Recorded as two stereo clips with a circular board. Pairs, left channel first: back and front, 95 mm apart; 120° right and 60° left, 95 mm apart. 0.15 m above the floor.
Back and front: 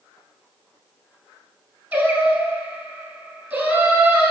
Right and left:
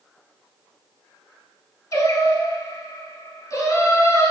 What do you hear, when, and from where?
1.9 s singing: 75° right, 1.1 m